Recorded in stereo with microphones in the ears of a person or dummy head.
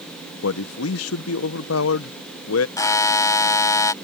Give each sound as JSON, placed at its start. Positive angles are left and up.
{"t": 0.4, "sound": "a man speaking", "side_deg": 80}
{"t": 2.8, "sound": "a buzzer", "side_deg": 15}